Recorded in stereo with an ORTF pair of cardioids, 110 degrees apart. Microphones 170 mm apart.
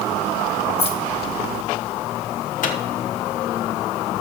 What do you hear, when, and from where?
0.8 s keys jangling: 35° left, 1.6 m
2.6 s a microwave: 50° left, 1.2 m